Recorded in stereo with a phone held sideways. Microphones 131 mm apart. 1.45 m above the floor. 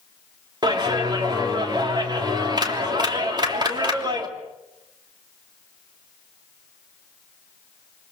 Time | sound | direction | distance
0.6 | a clap | 35° right (ahead or behind) | 3 m